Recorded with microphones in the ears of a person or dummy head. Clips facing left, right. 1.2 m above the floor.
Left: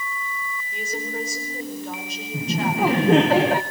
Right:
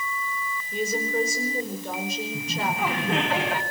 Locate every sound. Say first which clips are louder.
0.7 s a woman speaking: right 5 dB; 80° right, 4.5 m
2.3 s laughter: left 9 dB; 35° left (ahead or behind), 0.8 m